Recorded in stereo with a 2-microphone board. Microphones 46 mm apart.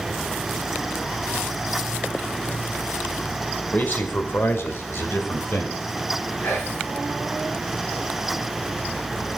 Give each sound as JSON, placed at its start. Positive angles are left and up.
{"t": 3.7, "sound": "a man speaking", "side_deg": 40, "distance_m": 2.5}
{"t": 6.4, "sound": "whispering", "side_deg": 65, "distance_m": 5.5}